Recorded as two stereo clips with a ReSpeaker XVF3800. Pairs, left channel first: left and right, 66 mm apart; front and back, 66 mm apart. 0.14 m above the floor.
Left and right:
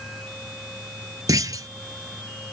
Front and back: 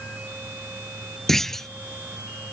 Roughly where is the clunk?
Right.